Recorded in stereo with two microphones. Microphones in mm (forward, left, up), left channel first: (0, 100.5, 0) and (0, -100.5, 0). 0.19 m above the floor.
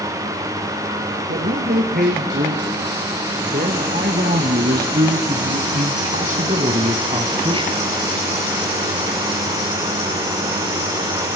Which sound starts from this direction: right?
A man speaking, at 1.3 s.